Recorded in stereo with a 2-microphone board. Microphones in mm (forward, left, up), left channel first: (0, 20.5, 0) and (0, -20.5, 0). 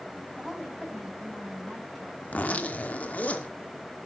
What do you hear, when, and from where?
0.4 s a woman speaking: centre (ahead or behind), 7.5 m
2.2 s a zipper: 35° left (ahead or behind), 2.5 m